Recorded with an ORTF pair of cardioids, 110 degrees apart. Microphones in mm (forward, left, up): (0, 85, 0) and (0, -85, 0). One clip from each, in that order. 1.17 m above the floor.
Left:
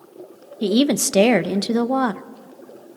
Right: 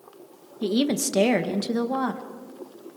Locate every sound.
0.6 s a woman speaking: 35° left, 1.0 m